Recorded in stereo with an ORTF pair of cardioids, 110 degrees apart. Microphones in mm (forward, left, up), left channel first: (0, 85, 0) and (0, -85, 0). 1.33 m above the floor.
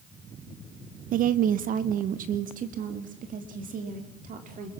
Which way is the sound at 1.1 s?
55° right.